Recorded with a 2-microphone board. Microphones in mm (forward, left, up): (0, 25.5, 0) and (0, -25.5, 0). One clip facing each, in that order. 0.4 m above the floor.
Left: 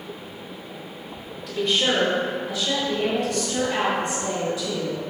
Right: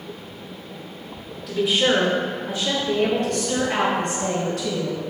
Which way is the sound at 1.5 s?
Centre (ahead or behind).